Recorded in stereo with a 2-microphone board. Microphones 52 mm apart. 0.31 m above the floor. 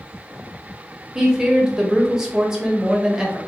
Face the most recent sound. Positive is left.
turn(degrees=-10)  # may be behind; listen again after turning